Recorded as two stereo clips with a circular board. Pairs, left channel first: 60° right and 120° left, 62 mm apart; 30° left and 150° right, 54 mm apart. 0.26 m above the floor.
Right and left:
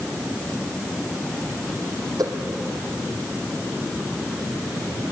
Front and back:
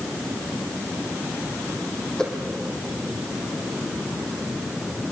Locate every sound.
2.2 s a whoosh: 110° left, 4 m